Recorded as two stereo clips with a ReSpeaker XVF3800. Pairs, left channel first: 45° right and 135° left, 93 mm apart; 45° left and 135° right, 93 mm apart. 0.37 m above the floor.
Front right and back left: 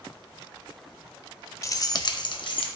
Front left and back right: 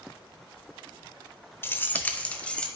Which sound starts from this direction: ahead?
Keys jangling, at 1.6 s.